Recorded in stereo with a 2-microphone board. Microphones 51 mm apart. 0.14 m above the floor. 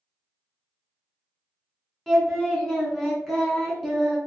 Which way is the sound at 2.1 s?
5° left (ahead or behind).